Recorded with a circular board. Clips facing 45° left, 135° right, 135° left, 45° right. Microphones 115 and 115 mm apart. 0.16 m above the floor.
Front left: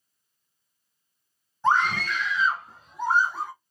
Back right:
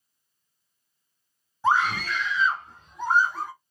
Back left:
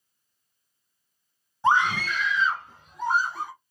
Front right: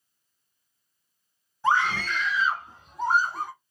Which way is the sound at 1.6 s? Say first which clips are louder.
Even, back left 2 dB; 145° left.